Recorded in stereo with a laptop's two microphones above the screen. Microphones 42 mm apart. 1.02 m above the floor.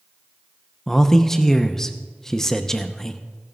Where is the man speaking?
15° left (ahead or behind), 0.7 m.